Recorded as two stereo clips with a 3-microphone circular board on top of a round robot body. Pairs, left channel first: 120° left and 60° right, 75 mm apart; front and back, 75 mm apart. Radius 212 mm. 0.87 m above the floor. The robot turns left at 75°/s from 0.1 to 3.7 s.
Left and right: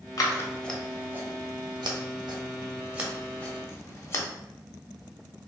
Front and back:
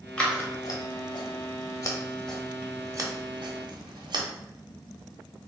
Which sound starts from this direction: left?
Scissors, at 0.2 s.